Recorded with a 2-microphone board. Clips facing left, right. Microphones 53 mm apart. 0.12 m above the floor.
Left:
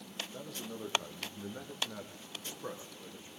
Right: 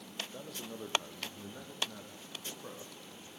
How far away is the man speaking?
About 3.5 m.